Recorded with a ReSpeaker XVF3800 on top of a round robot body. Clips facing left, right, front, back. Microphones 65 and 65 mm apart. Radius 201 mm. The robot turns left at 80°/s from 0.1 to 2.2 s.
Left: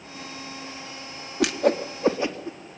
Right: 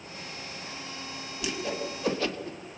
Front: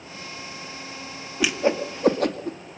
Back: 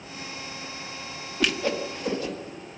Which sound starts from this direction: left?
A whoosh, at 1.4 s.